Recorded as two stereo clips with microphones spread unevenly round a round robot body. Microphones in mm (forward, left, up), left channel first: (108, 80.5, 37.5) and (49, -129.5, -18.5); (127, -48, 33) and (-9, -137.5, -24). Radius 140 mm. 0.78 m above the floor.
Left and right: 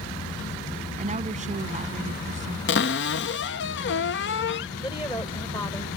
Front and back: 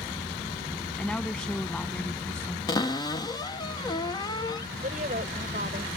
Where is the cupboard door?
115° left.